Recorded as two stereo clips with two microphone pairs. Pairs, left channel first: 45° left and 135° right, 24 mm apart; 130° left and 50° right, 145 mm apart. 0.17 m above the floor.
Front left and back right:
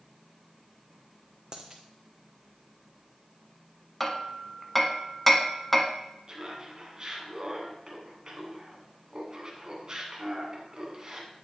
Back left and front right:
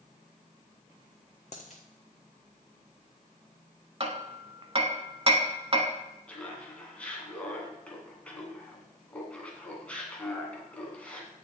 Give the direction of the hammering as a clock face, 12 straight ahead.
1 o'clock.